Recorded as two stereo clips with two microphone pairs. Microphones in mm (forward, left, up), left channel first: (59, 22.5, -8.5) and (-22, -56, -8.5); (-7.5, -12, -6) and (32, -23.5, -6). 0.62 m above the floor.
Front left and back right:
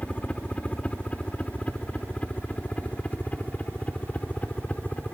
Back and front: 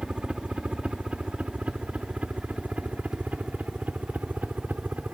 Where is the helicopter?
20° right; by 5.1 s 30° right.